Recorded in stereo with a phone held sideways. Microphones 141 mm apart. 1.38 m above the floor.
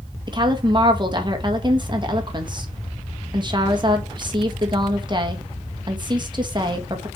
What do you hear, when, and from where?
0.3 s a woman speaking: 35° right (ahead or behind), 1.6 m